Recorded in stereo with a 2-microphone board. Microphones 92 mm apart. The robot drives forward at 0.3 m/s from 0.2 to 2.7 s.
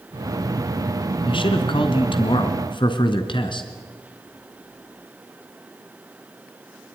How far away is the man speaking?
About 2.5 m.